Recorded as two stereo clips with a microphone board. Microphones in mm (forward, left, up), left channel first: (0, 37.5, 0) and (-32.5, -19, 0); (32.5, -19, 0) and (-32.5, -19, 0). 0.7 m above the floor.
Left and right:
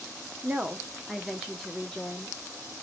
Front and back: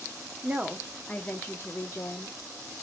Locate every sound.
0.4 s a woman speaking: 155° right, 0.6 m; by 2.4 s 20° right, 1.0 m